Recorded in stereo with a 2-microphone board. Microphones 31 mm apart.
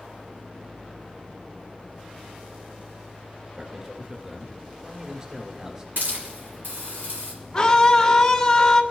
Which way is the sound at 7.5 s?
20° left (ahead or behind).